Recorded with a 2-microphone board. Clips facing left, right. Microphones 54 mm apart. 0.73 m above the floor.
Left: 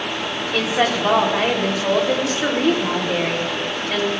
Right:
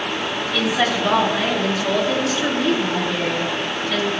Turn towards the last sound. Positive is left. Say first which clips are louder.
# left 1 dB
turn(degrees=45)  # may be behind; listen again after turning